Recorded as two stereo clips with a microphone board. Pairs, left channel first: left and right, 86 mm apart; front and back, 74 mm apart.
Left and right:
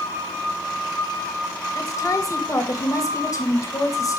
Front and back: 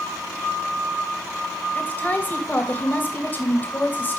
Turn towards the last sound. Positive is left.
turn(degrees=55)